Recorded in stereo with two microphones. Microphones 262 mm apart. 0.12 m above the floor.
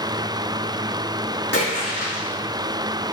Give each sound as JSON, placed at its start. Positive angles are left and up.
{"t": 1.5, "sound": "a splash", "side_deg": 40, "distance_m": 5.0}